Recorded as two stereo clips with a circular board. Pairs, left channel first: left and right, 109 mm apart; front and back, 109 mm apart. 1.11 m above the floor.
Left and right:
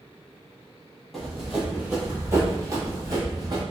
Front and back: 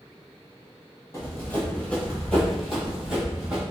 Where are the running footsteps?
5° left, 1.2 m; by 3.6 s 105° right, 1.5 m.